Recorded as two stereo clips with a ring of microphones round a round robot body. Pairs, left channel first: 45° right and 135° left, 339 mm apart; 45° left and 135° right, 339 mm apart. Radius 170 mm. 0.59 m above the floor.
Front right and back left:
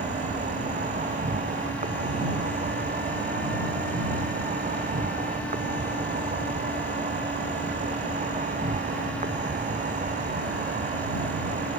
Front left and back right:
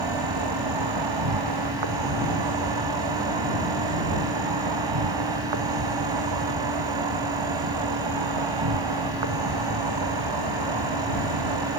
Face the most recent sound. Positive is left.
turn(degrees=-155)